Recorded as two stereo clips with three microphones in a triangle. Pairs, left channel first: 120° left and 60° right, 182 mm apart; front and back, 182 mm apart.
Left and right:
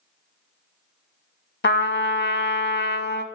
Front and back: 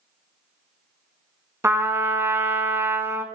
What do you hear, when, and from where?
1.6 s a trumpet: 105° left, 0.6 m